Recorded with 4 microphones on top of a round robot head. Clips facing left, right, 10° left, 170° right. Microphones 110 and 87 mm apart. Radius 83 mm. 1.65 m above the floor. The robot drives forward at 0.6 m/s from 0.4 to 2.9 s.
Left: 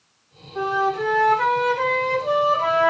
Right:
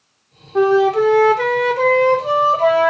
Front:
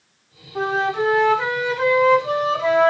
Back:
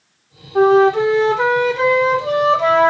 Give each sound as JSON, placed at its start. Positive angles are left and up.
{"t": 0.6, "sound": "a flute", "azimuth_deg": -110, "distance_m": 0.8}